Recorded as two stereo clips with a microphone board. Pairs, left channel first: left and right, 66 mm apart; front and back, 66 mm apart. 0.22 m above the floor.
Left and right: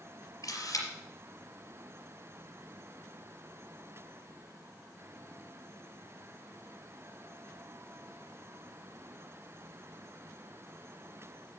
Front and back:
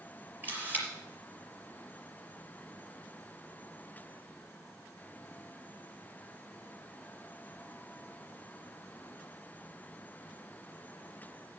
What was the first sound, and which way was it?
A camera shutter, 120° left.